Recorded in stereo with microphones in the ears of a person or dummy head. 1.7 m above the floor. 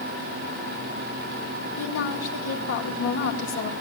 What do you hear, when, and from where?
1.8 s a woman speaking: 70° left (ahead or behind), 2 m